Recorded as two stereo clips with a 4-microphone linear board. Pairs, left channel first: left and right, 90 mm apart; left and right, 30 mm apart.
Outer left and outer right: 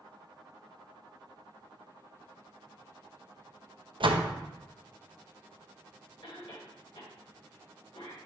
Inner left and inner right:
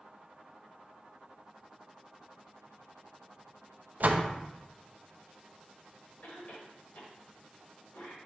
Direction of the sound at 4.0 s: 65° right (ahead or behind).